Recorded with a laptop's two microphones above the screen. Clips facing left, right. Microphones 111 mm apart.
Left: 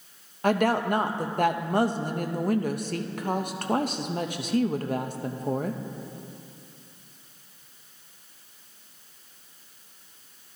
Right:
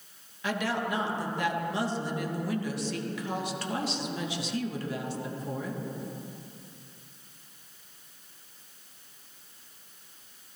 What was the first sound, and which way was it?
A woman speaking, 50° left (ahead or behind).